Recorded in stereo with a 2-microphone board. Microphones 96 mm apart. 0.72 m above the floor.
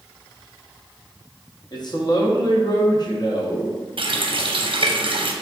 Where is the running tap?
60° right (ahead or behind), 0.6 m.